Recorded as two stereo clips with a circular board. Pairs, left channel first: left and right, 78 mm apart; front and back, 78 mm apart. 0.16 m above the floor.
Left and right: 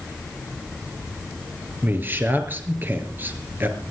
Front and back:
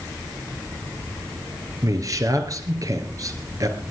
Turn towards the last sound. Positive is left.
turn(degrees=-150)